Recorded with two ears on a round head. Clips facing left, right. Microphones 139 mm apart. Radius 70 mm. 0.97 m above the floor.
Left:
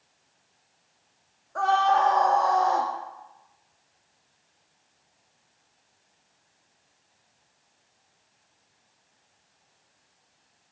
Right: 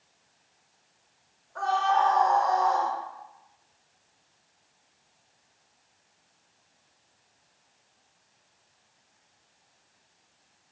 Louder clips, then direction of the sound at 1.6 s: Left 3 dB; 60° left (ahead or behind).